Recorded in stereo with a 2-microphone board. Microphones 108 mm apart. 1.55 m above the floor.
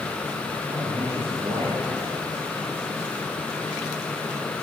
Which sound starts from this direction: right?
A man speaking, at 0.7 s.